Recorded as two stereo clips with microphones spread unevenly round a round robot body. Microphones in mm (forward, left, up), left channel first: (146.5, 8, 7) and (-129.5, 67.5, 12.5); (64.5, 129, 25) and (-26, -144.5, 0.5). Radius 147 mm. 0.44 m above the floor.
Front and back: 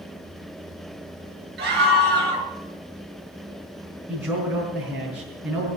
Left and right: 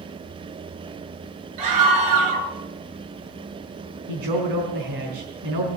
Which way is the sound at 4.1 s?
110° right.